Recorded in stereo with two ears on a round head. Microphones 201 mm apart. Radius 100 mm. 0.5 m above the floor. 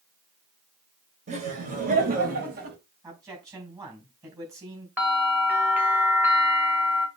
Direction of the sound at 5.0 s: 10° right (ahead or behind).